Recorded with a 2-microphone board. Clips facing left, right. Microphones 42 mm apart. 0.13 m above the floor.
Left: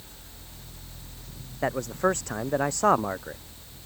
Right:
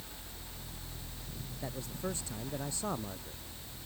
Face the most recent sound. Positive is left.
turn(degrees=65)  # may be behind; listen again after turning